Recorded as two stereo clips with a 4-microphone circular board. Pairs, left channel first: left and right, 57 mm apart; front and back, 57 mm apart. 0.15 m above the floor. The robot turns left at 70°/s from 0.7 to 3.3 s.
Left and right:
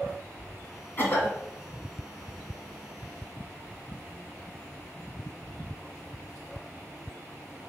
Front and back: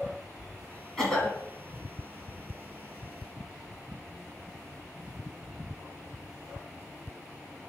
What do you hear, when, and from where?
1.0 s a cough: 70° left, 1.8 m; by 1.4 s 40° left, 1.8 m